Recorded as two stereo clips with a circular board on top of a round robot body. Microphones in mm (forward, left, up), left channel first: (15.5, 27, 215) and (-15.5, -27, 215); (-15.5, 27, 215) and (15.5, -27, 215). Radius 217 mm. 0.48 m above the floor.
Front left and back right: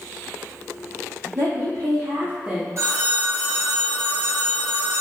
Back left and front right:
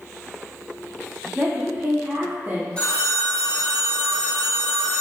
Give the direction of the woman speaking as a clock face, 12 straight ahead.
4 o'clock.